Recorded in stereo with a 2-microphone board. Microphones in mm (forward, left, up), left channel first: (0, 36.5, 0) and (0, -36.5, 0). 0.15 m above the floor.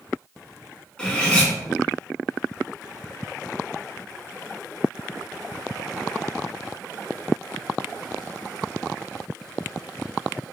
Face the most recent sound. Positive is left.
turn(degrees=15)  # may be behind; listen again after turning